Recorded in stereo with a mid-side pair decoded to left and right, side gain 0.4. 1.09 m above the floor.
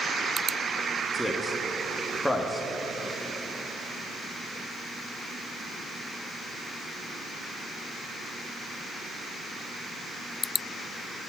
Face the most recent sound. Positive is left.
turn(degrees=10)